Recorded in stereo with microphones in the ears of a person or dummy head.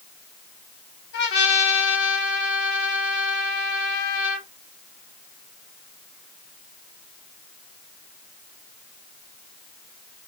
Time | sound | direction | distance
1.1 | a trumpet | 60° left (ahead or behind) | 2 m